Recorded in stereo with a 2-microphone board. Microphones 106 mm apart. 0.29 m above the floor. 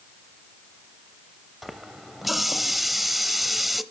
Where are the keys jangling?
I don't hear keys jangling.